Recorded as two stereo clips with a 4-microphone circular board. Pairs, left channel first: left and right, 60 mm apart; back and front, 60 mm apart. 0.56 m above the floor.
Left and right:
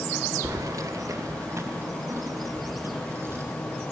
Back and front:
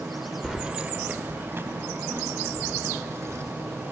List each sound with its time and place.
0.4 s keys jangling: 90° right, 1.1 m; by 3.4 s 45° right, 5.5 m